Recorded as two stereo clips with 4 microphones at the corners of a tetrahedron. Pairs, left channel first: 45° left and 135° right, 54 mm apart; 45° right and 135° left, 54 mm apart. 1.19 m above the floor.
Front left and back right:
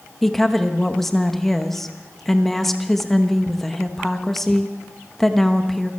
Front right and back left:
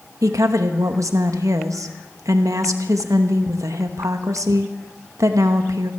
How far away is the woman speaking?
About 1.1 m.